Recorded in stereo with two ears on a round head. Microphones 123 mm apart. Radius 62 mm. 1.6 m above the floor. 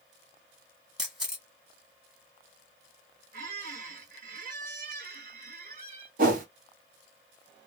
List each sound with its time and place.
1.0 s a camera shutter: 5° right (ahead or behind), 0.9 m
3.3 s a squeak: 65° right (ahead or behind), 1.8 m
6.2 s a whoosh: 70° right (ahead or behind), 0.9 m